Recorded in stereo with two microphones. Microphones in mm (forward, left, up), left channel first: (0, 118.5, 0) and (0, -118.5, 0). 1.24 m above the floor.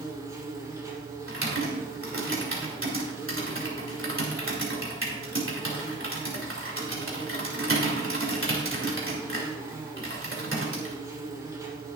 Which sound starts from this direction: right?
Typing on a keyboard, at 1.3 s.